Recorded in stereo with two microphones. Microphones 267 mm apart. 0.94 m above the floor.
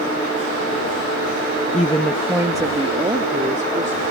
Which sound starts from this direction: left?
A woman speaking, at 1.7 s.